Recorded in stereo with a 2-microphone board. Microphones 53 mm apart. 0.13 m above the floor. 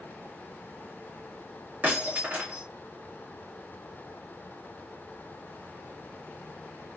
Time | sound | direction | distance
1.8 | breaking glass | 35° right (ahead or behind) | 2.5 m